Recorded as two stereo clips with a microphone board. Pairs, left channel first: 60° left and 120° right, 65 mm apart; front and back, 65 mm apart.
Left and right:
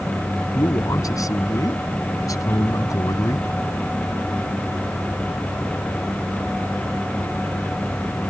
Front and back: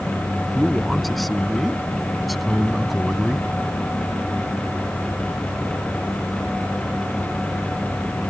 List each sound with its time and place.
0.6 s a man speaking: 90° left